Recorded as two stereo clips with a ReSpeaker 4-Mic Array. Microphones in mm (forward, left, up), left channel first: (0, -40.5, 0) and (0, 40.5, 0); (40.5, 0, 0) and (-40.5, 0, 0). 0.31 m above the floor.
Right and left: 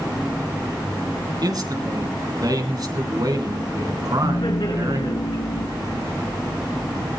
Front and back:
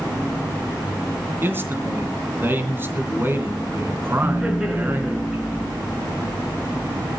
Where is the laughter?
100° right, 5 m.